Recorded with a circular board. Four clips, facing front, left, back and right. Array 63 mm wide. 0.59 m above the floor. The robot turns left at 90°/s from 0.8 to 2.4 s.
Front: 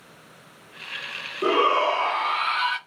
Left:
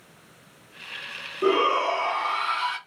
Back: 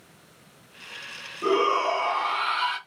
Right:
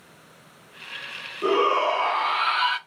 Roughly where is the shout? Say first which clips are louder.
Right 1 dB, front 2 dB; ahead.